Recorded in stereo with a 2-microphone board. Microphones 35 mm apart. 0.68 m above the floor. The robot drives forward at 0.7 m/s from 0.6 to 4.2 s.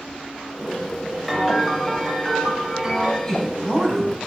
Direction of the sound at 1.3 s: Centre (ahead or behind).